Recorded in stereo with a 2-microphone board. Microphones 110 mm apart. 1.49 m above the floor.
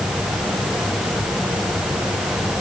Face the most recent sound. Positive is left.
No sound to turn to.